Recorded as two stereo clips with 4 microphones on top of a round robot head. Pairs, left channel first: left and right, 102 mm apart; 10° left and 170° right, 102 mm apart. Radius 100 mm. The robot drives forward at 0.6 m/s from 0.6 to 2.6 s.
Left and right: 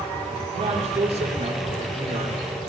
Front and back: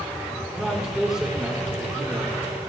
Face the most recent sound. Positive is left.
turn(degrees=-105)